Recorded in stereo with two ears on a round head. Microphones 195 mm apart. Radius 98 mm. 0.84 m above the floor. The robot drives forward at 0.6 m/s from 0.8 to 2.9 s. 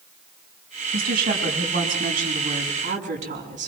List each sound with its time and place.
0.9 s a woman speaking: 50° right (ahead or behind), 6 m; by 3.7 s 40° right (ahead or behind), 6.5 m